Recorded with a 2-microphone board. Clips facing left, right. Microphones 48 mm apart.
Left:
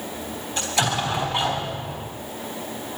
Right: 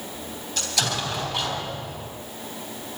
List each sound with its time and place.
0.6 s an explosion: 25° left (ahead or behind), 3 m